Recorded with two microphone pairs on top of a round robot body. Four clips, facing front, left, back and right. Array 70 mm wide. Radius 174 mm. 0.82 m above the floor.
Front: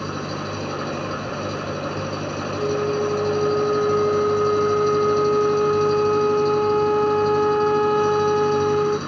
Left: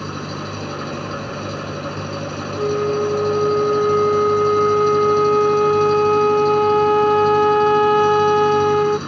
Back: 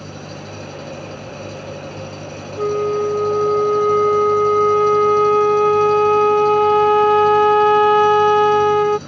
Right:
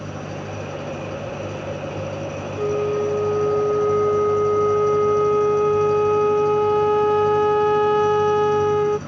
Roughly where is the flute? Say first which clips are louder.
Left 2 dB, back 5 dB; behind.